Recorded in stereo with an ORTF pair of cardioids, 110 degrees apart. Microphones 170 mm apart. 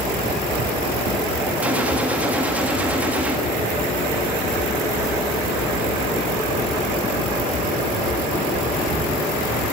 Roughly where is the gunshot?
Ahead.